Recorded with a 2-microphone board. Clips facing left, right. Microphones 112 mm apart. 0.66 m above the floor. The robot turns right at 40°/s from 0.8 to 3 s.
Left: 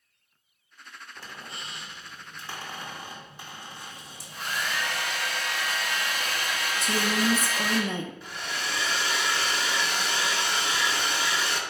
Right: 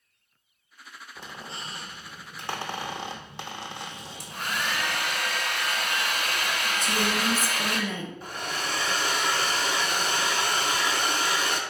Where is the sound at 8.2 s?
45° right (ahead or behind), 0.8 m.